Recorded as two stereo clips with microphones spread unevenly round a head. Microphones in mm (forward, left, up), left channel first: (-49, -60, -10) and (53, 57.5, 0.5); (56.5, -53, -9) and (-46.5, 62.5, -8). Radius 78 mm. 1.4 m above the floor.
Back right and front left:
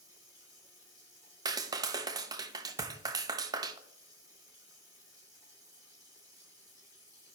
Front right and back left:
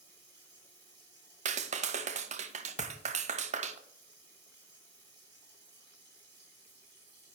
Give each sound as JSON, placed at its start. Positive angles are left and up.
{"t": 0.0, "sound": "running water", "azimuth_deg": 120, "distance_m": 4.5}
{"t": 1.4, "sound": "a clap", "azimuth_deg": 105, "distance_m": 0.5}
{"t": 2.8, "sound": "a thud", "azimuth_deg": 25, "distance_m": 0.7}